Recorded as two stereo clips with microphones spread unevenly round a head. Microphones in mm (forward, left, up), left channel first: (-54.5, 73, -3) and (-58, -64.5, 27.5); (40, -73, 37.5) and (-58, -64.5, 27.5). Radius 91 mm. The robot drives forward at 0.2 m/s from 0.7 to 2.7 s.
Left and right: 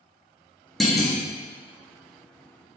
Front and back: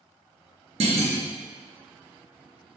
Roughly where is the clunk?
Behind.